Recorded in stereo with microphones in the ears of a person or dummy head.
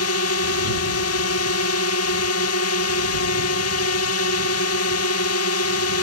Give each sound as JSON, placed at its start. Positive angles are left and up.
{"t": 0.0, "sound": "a drone", "side_deg": 65}